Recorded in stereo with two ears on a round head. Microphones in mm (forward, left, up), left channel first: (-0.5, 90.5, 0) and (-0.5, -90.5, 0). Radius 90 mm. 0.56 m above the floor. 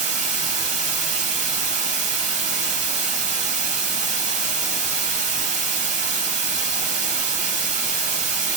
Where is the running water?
35° right (ahead or behind), 0.7 m.